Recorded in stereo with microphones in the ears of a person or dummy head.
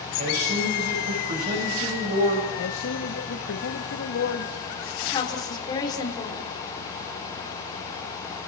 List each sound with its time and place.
0.2 s a man speaking: 45° right (ahead or behind), 6 m
2.6 s a man speaking: 70° left (ahead or behind), 1.7 m
5.0 s a woman speaking: 25° left (ahead or behind), 4.5 m